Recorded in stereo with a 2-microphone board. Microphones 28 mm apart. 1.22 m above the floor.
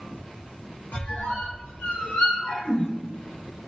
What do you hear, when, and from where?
0.9 s a squeak: 75° left (ahead or behind), 0.8 m